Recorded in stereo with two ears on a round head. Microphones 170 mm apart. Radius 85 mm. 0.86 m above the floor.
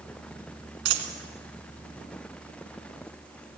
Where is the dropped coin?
65° right (ahead or behind), 2.5 m.